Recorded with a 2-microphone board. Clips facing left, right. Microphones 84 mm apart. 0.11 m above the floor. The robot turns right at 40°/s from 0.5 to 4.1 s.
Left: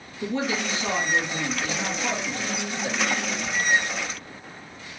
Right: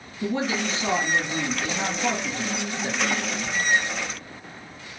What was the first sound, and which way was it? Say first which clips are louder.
A man speaking: right 1 dB; 160° right.